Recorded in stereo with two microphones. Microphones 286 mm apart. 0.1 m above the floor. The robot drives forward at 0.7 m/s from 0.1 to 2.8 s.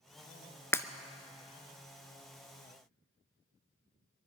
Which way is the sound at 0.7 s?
10° left (ahead or behind).